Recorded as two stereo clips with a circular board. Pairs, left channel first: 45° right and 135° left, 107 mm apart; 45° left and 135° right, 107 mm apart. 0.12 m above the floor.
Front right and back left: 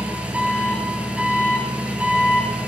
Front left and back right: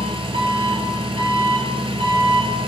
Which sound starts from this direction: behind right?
An engine running, at 0.0 s.